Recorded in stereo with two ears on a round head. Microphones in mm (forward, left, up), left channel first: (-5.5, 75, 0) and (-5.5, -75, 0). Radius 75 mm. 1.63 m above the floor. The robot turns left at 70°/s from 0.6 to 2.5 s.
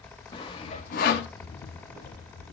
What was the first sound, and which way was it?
Sawing, 30° left (ahead or behind).